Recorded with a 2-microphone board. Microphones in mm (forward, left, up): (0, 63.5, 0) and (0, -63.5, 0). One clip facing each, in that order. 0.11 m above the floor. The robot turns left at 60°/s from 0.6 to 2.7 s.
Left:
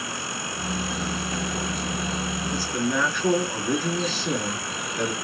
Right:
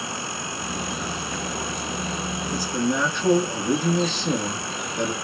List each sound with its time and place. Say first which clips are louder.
2.5 s a man speaking: right 2 dB; 15° right (ahead or behind), 1.4 m; by 5.1 s 20° right (ahead or behind), 1.4 m